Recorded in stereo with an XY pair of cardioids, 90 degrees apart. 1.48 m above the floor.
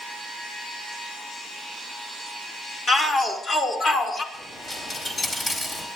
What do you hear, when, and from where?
2.9 s a shout: 50° left, 5.5 m; by 4.2 s 60° left, 5.5 m
4.3 s a dropped coin: 45° left, 5 m